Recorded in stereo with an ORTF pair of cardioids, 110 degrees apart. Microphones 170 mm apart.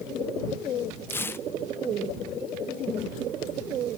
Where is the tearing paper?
15° left.